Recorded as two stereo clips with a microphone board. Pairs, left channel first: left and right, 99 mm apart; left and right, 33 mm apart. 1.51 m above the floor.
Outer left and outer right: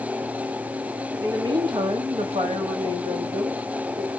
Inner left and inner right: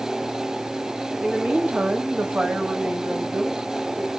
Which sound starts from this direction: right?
A woman speaking, at 1.2 s.